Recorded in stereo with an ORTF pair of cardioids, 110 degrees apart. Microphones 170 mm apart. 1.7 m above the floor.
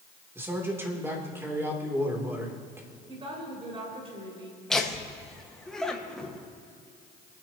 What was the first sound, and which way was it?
A man speaking, 15° right.